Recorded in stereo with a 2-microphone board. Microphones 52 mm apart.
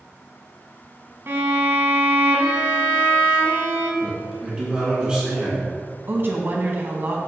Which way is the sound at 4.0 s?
15° right (ahead or behind).